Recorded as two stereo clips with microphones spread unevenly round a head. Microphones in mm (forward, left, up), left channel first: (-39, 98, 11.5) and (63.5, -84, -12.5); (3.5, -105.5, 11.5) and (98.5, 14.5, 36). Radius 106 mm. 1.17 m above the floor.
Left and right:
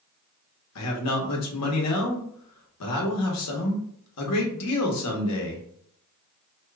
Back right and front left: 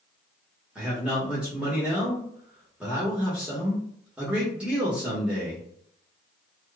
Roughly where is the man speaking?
Behind left.